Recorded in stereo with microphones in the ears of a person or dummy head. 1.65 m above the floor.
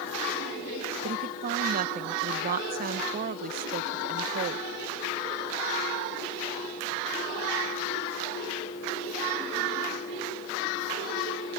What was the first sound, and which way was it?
A woman speaking, 50° right (ahead or behind).